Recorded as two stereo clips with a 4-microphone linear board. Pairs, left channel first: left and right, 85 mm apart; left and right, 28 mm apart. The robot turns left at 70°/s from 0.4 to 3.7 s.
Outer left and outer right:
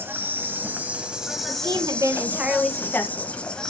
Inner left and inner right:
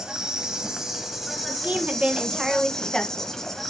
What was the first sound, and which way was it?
An insect, 25° right (ahead or behind).